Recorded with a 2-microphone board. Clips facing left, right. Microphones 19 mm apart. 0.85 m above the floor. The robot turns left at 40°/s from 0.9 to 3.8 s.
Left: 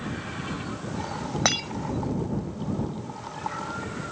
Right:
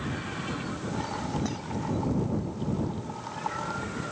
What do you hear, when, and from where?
1.4 s breaking glass: 85° left